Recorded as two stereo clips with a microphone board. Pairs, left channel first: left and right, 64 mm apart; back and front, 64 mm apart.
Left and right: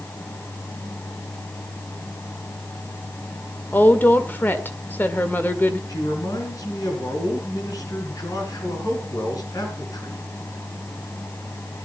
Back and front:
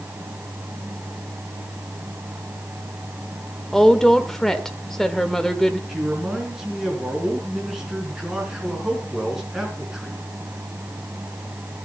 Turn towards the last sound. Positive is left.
turn(degrees=80)